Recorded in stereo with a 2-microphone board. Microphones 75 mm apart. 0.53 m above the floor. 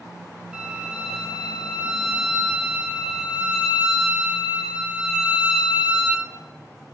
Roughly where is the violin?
Centre.